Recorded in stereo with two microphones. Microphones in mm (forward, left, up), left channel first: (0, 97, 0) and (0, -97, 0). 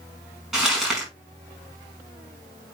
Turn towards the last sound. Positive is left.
turn(degrees=-5)  # may be behind; listen again after turning